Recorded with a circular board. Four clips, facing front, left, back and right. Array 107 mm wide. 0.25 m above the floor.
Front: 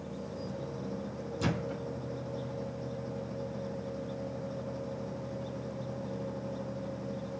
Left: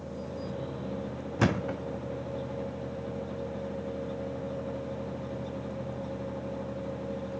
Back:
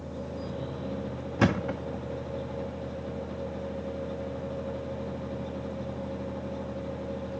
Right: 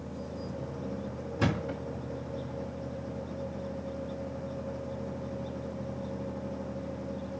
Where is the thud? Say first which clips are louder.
Left 3 dB, back 8 dB; 150° left, 1.5 m.